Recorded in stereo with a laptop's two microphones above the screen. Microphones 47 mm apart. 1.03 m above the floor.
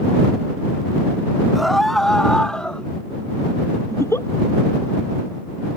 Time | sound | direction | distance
1.6 | a scream | 5° right (ahead or behind) | ?
3.9 | a giggle | 70° left (ahead or behind) | ?